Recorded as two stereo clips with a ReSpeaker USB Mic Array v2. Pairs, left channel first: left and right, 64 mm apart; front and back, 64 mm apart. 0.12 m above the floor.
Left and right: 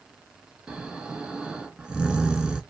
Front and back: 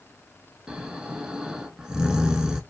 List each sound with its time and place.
0.7 s snoring: 135° right, 0.5 m